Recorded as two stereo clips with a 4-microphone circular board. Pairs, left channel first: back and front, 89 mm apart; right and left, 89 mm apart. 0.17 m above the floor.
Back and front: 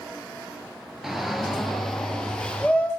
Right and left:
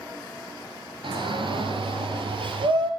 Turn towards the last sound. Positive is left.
turn(degrees=105)